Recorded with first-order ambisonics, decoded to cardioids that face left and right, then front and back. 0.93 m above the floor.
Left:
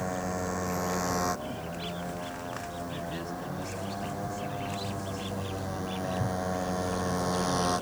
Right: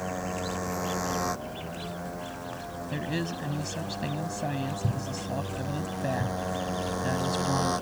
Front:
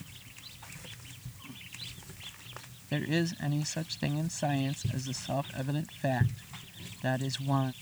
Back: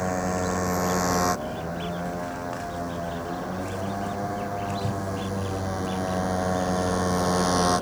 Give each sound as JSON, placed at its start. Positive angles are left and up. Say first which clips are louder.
{"t": 0.0, "sound": "a motorcycle", "louder": "even, back 23 dB", "azimuth_deg": 180}
{"t": 2.9, "sound": "a woman speaking", "louder": "right 3 dB, back 2 dB", "azimuth_deg": -30}